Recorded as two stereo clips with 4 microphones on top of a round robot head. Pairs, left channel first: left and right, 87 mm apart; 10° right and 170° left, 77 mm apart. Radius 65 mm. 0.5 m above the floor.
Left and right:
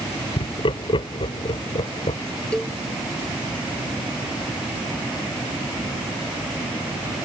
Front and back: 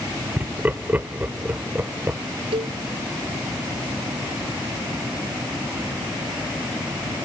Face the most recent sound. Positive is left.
turn(degrees=170)